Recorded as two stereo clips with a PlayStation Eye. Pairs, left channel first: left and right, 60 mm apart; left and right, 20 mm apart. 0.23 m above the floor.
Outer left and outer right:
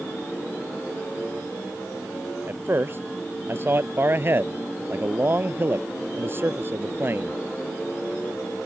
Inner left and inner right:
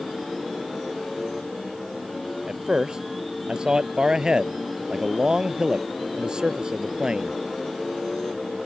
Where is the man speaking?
40° right (ahead or behind).